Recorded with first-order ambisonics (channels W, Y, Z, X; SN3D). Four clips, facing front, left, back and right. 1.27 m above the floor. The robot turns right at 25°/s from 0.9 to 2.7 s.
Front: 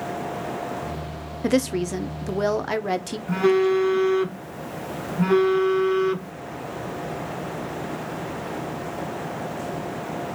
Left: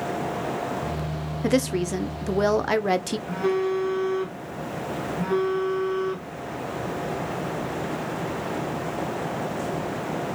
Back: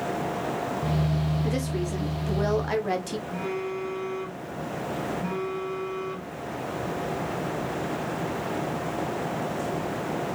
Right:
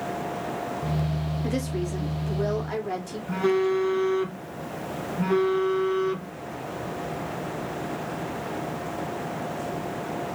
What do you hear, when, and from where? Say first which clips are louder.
1.4 s a woman speaking: left 9 dB, front 6 dB; 45° left, 0.6 m; by 3.2 s 75° left, 0.6 m
3.3 s a phone buzzing: right 2 dB, front 15 dB; 10° right, 0.8 m